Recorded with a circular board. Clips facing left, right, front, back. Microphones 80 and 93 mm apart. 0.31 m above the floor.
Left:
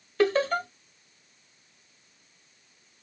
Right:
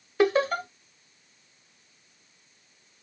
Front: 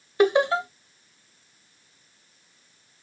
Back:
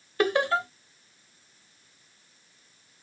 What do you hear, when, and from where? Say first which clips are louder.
0.2 s laughter: right 1 dB, front 5 dB; 35° right, 1.3 m